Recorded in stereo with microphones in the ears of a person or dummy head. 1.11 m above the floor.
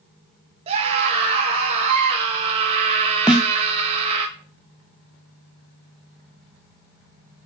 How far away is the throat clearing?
No throat clearing in this recording.